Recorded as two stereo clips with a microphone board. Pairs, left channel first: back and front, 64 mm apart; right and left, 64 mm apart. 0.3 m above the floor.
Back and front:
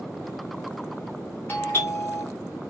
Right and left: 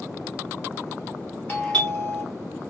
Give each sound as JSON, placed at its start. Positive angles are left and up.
{"t": 1.5, "sound": "a doorbell", "azimuth_deg": -145, "distance_m": 1.9}